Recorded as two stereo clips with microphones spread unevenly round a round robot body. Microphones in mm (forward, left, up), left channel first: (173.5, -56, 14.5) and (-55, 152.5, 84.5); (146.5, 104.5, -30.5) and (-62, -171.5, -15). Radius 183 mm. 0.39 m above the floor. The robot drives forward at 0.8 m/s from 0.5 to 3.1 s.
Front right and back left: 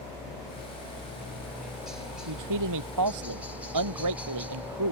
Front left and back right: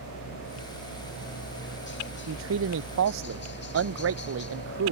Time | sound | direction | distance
0.0 | a helicopter | 30° left | ?
2.3 | a man speaking | 175° left | ?